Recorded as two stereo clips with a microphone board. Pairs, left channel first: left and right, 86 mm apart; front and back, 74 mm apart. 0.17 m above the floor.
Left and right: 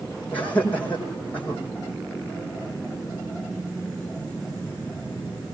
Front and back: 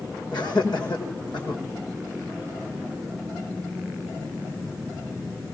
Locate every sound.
0.3 s laughter: 15° left, 7 m